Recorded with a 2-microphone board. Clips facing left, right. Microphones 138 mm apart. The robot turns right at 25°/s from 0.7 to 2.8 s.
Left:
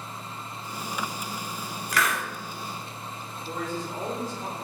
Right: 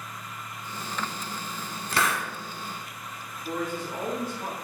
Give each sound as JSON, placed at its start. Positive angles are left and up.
{"t": 1.9, "sound": "a hiss", "side_deg": -30, "distance_m": 0.7}
{"t": 3.5, "sound": "a man speaking", "side_deg": -65, "distance_m": 1.9}